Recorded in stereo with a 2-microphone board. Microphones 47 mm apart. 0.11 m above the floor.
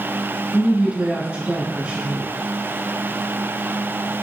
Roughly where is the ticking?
I don't hear ticking.